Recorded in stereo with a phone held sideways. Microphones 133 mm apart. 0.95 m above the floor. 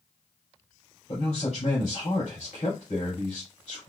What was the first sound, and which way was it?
A man speaking, 50° left (ahead or behind).